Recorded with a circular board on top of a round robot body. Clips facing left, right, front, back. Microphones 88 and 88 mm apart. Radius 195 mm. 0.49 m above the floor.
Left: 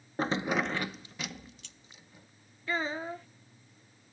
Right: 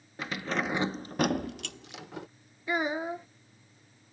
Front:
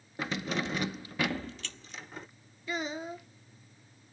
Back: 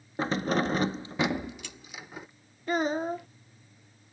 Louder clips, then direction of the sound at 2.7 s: Right 3 dB, back 8 dB; 160° right.